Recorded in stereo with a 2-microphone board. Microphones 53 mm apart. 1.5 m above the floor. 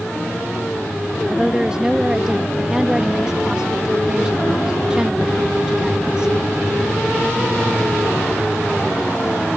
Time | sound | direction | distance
1.3 | a woman speaking | 15° right (ahead or behind) | ?